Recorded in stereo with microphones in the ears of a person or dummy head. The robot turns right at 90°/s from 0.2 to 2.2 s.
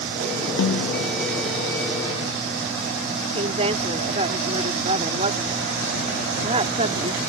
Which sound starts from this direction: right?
A woman speaking, at 3.4 s.